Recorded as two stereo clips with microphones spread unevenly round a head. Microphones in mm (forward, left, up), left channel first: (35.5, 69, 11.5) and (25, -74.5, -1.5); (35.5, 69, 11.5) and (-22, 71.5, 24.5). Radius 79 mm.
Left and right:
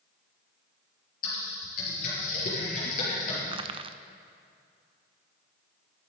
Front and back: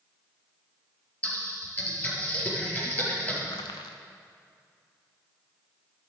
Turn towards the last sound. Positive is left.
turn(degrees=-40)